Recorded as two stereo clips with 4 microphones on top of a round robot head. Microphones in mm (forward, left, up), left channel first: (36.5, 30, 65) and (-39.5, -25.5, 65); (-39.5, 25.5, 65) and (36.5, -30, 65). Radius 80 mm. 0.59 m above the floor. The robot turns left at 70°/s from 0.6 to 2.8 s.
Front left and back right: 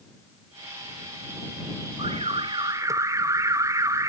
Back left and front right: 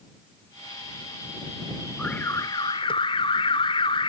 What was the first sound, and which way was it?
An alarm, 140° right.